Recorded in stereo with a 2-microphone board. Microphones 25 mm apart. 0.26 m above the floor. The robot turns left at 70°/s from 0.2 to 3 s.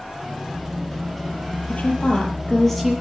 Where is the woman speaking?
80° left, 7 m; by 2.9 s 5° right, 7 m.